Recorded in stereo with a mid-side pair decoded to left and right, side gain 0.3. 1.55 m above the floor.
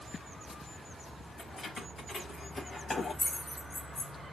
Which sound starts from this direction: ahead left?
Keys jangling, at 1.4 s.